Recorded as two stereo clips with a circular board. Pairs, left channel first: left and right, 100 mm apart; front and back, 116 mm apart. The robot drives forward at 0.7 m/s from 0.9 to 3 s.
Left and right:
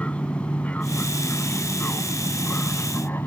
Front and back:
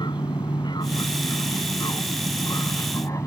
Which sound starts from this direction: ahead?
An aircraft, at 0.0 s.